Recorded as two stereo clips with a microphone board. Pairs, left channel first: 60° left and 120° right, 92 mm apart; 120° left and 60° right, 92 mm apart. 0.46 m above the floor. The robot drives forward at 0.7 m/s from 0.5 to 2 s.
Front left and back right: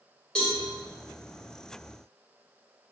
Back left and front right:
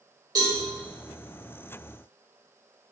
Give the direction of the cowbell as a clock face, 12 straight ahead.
1 o'clock.